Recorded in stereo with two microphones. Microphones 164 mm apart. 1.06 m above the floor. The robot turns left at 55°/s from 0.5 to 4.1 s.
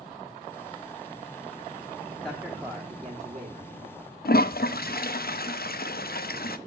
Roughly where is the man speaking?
Centre.